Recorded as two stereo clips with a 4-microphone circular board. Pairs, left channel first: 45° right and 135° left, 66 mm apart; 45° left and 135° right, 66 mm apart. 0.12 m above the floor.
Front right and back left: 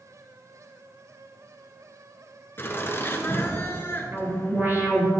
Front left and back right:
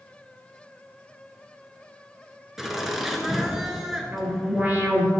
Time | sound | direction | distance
2.6 | laughter | 55° right | 1.5 m
4.1 | an alarm | 170° left | 3 m